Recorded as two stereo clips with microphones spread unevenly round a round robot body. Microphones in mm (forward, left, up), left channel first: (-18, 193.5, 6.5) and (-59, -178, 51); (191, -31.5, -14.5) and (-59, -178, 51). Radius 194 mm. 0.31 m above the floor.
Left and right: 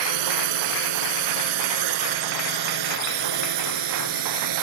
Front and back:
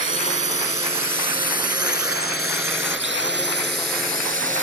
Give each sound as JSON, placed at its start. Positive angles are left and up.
{"t": 0.0, "sound": "a drone", "azimuth_deg": -80}